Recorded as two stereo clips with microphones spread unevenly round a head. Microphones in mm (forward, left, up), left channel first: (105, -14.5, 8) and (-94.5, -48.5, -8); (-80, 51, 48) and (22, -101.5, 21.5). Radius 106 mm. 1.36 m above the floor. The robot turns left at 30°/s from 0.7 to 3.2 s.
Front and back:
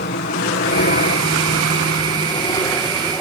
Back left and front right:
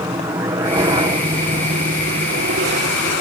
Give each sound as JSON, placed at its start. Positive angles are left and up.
{"t": 0.0, "sound": "a helicopter", "azimuth_deg": 10}